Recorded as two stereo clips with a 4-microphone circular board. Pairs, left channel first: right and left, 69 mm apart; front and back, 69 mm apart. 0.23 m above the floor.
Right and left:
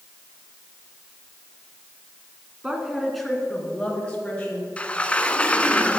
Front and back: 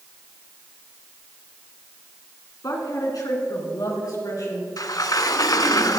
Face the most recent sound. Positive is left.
turn(degrees=-20)